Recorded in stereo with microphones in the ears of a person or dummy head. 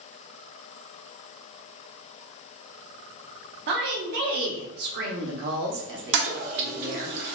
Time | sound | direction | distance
3.7 | a woman speaking | 60° right (ahead or behind) | 0.7 m
6.1 | a toilet flushing | 60° right (ahead or behind) | 0.6 m